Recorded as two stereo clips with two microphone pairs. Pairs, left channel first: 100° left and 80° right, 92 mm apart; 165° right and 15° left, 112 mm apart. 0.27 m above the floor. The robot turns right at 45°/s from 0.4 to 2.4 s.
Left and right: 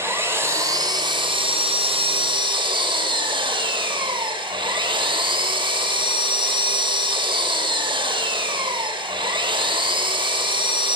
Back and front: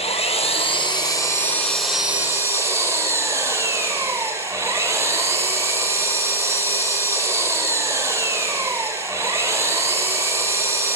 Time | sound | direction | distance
0.0 | an engine running | 140° right | 3.5 m